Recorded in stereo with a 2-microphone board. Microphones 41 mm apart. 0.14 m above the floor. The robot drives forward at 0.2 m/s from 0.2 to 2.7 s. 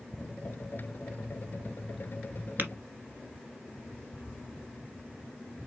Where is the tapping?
50° right (ahead or behind), 1.5 m.